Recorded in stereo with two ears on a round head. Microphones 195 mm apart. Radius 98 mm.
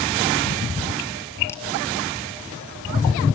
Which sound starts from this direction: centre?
A crack, at 1.5 s.